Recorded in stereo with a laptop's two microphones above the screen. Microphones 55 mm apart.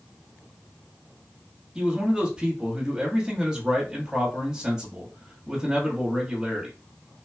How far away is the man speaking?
About 1.1 m.